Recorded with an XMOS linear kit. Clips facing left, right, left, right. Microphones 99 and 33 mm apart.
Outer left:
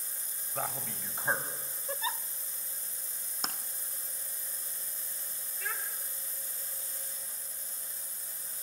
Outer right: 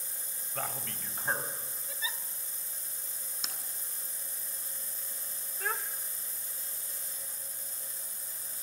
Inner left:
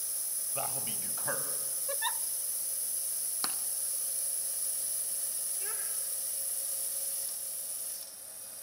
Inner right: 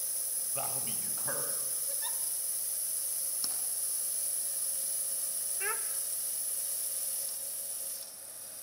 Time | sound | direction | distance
0.6 | a man speaking | 10° left (ahead or behind) | 3 m
1.9 | a giggle | 50° left (ahead or behind) | 0.5 m
3.4 | tapping | 50° left (ahead or behind) | 1.5 m
5.6 | a child speaking | 45° right (ahead or behind) | 1.2 m